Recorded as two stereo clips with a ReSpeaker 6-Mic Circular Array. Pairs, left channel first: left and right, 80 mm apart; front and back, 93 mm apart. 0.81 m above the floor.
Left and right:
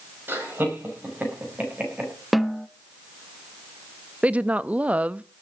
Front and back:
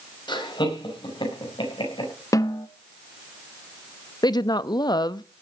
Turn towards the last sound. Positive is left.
turn(degrees=-20)